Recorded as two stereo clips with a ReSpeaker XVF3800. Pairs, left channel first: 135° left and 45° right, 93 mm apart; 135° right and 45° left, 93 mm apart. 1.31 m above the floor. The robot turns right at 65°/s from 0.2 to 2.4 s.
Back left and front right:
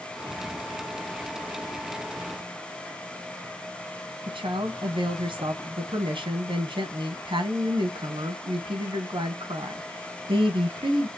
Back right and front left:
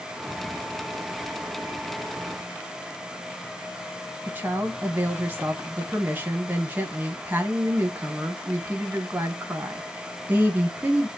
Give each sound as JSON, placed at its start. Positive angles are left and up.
{"t": 4.3, "sound": "a woman speaking", "azimuth_deg": -25, "distance_m": 1.0}